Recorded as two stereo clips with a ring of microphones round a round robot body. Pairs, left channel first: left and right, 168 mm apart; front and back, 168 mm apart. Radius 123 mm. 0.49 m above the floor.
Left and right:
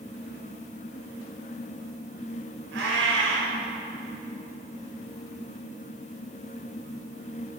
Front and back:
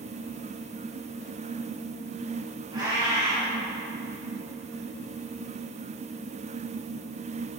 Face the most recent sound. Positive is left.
turn(degrees=-105)